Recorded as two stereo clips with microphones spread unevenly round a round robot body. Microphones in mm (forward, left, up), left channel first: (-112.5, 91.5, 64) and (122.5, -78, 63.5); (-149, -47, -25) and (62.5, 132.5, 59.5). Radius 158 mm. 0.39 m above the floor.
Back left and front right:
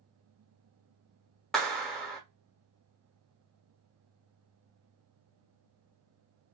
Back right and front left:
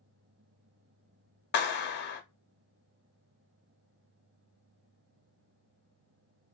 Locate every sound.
1.5 s a clap: 130° right, 0.8 m